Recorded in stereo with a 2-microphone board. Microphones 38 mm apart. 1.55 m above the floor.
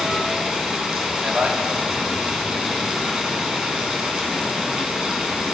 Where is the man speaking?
35° right (ahead or behind), 4.5 m.